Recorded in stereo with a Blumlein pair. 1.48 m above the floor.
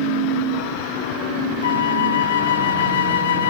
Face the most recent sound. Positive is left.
turn(degrees=70)